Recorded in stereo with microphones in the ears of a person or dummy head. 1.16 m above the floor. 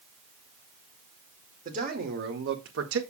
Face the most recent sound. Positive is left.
turn(degrees=-70)  # may be behind; listen again after turning